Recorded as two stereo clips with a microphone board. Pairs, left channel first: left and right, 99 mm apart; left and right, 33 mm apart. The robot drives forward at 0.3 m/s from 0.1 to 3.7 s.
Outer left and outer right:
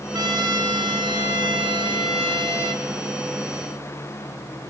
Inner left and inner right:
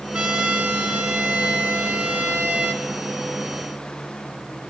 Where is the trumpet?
45° right (ahead or behind), 1.6 m; by 2.9 s 75° right (ahead or behind), 1.2 m.